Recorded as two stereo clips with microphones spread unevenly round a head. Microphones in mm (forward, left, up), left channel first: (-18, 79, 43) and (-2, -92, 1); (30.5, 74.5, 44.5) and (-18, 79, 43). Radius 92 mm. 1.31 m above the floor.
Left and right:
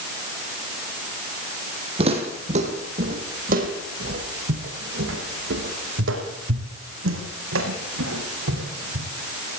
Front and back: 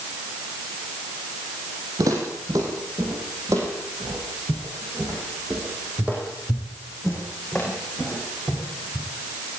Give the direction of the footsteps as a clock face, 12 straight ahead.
5 o'clock.